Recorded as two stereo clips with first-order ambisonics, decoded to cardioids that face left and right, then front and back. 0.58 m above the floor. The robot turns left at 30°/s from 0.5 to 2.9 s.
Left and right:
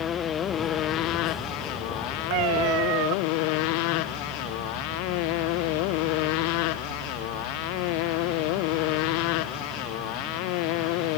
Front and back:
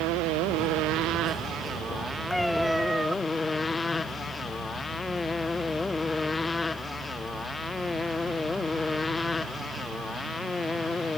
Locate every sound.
0.0 s a motorcycle: 150° left; by 11.2 s 80° left
2.3 s a cat meowing: 85° right; by 3.1 s 100° right